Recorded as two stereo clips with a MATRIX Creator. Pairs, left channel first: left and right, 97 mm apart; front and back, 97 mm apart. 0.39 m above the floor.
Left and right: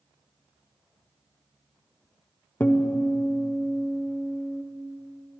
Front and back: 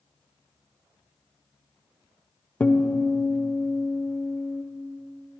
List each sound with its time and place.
2.6 s a guitar: 50° left, 0.8 m